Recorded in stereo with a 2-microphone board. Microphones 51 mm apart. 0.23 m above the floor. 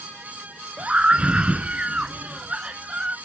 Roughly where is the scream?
Right.